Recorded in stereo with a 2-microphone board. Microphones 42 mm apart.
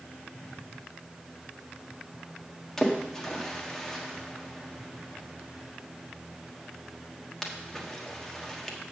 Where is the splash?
10° left (ahead or behind), 1.2 m.